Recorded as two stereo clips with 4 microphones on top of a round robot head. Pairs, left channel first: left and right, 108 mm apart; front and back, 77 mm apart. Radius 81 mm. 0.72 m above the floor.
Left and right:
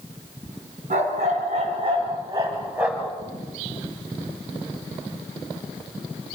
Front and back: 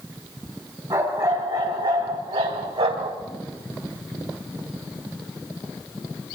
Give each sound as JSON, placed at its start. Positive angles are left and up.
{"t": 0.9, "sound": "a dog barking", "azimuth_deg": -120, "distance_m": 3.5}